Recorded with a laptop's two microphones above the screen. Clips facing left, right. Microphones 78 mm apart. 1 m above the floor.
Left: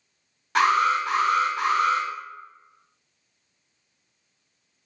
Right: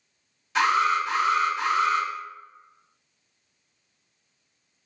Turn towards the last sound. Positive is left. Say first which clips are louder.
# left 2 dB
turn(degrees=55)  # may be behind; listen again after turning